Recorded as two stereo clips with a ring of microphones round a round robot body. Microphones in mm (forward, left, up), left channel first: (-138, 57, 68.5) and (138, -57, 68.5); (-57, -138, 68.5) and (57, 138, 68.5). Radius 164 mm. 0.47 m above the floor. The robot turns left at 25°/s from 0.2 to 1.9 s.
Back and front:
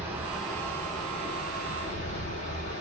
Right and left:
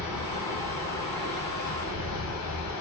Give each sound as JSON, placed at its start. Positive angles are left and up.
{"t": 0.0, "sound": "running water", "azimuth_deg": -105, "distance_m": 1.1}